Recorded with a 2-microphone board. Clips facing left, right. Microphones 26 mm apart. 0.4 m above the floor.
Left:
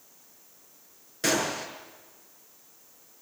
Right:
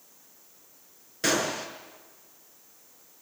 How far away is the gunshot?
About 5.5 m.